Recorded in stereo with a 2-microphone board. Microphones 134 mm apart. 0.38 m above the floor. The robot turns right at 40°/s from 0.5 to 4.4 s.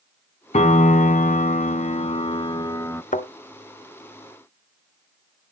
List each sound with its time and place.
0.5 s a piano: 65° left, 0.6 m; by 3.0 s 160° left, 0.6 m
3.1 s a thud: 85° left, 1.3 m; by 3.3 s 80° left, 1.3 m